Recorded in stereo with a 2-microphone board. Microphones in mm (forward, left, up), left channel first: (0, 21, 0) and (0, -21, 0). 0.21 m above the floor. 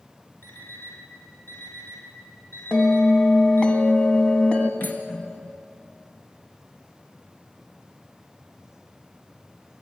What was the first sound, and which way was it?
An alarm clock, 60° left (ahead or behind).